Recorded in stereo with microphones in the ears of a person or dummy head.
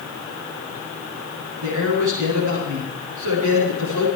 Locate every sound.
1.6 s a man speaking: 90° right, 7.5 m